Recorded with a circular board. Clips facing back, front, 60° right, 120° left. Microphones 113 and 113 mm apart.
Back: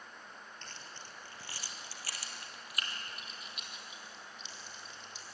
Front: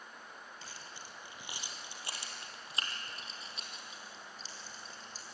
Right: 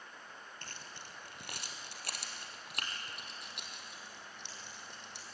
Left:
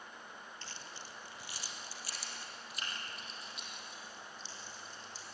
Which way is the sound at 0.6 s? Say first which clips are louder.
Even, left 1 dB; 85° right.